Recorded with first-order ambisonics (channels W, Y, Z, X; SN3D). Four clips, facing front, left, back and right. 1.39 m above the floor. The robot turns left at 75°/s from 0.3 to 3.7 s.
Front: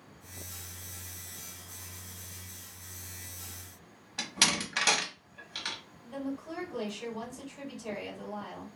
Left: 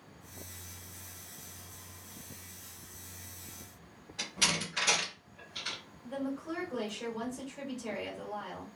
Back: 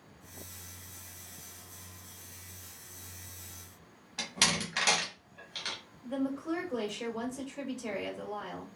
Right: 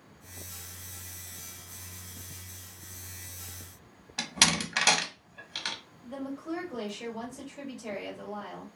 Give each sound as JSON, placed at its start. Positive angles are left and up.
{"t": 4.2, "sound": "a door slam", "azimuth_deg": -80, "distance_m": 0.7}
{"t": 6.0, "sound": "a woman speaking", "azimuth_deg": 175, "distance_m": 1.8}